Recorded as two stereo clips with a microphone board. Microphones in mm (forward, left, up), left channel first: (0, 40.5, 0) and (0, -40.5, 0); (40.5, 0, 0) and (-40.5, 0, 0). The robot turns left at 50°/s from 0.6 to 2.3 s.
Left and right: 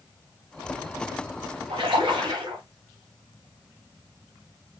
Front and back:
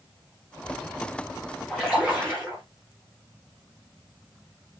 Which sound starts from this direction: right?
A splash, at 1.7 s.